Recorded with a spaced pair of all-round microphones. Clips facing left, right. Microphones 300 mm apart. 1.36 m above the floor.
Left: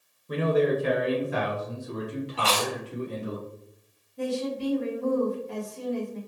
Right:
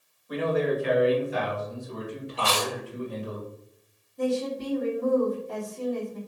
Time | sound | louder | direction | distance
0.3 | a man speaking | left 2 dB | 30° left (ahead or behind) | 0.8 m
2.4 | chewing | right 1 dB | 15° right (ahead or behind) | 1.2 m
4.2 | a woman speaking | right 2 dB | 70° left (ahead or behind) | 1.7 m